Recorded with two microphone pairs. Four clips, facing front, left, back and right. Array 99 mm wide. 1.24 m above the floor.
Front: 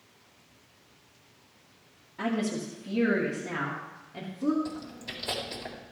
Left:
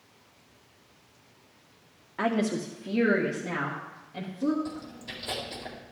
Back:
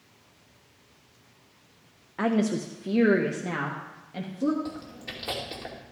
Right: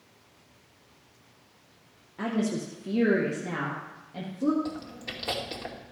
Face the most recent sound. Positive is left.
turn(degrees=-125)